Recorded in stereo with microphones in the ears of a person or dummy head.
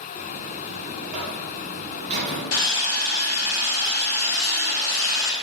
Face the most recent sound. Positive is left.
turn(degrees=75)  # may be behind; listen again after turning